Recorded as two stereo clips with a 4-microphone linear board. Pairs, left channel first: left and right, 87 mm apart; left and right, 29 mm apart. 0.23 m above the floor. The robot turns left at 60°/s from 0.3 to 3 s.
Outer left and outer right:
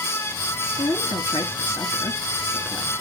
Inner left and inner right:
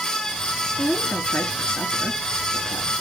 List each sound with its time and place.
0.8 s a woman speaking: 55° left (ahead or behind), 2.5 m; by 2.9 s 10° right (ahead or behind), 2.5 m